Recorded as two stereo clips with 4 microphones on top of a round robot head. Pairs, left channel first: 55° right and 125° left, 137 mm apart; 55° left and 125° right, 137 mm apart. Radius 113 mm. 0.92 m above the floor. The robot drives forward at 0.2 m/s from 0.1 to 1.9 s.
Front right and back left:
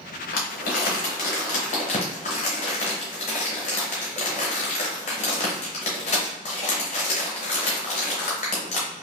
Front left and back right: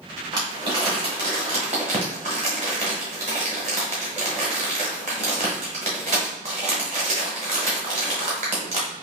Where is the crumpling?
65° right, 1.0 m; by 8.9 s 90° right, 0.9 m.